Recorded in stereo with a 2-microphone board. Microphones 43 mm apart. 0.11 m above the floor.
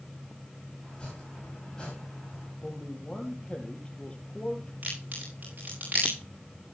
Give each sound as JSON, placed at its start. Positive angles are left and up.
{"t": 0.8, "sound": "chopping", "side_deg": 20, "distance_m": 10.0}
{"t": 2.6, "sound": "a man speaking", "side_deg": 25, "distance_m": 3.0}
{"t": 4.8, "sound": "a crack", "side_deg": -45, "distance_m": 8.5}